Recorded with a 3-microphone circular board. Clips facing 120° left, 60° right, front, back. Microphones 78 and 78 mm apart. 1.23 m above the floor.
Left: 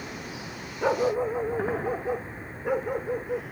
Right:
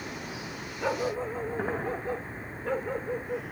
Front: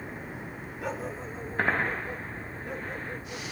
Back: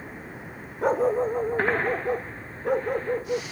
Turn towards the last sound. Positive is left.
turn(degrees=-165)